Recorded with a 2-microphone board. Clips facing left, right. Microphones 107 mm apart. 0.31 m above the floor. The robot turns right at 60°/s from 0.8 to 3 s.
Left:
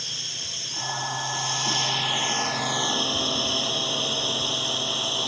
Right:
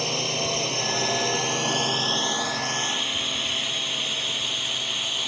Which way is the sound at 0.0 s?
70° right (ahead or behind).